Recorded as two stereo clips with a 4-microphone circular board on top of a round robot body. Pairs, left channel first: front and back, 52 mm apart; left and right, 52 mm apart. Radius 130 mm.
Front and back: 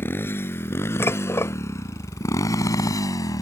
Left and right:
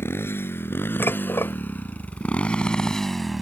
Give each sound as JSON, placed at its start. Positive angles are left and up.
{"t": 0.0, "sound": "a motorcycle", "azimuth_deg": 50}
{"t": 1.0, "sound": "dishes clattering", "azimuth_deg": 45}